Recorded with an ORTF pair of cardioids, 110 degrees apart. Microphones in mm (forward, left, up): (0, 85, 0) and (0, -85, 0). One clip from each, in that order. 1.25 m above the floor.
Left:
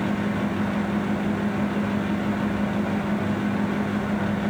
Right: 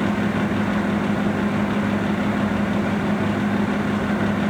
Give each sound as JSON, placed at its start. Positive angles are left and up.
{"t": 0.0, "sound": "a fan", "azimuth_deg": -25, "distance_m": 0.7}